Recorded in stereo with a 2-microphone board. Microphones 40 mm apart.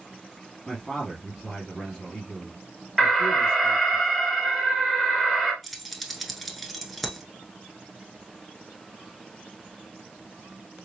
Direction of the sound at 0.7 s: 15° left (ahead or behind).